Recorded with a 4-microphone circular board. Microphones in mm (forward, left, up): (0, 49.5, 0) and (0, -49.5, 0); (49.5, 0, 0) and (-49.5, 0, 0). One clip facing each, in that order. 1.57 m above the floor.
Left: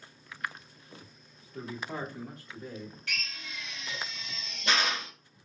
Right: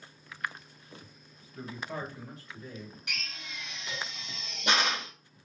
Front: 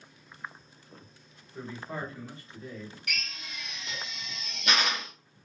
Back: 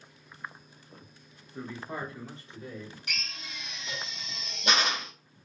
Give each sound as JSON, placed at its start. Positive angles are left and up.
{"t": 1.5, "sound": "a man speaking", "azimuth_deg": 100, "distance_m": 1.7}
{"t": 3.1, "sound": "a drill", "azimuth_deg": -145, "distance_m": 1.0}